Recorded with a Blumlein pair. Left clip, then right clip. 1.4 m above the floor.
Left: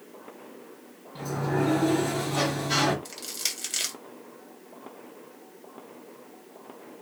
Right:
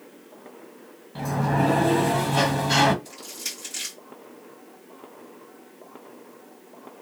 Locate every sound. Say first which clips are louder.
1.1 s a sliding door: right 4 dB; 20° right, 0.7 m
3.0 s crushing: left 2 dB; 55° left, 0.9 m